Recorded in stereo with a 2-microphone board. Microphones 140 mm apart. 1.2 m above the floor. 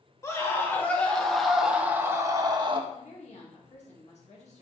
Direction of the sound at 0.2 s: 20° left (ahead or behind).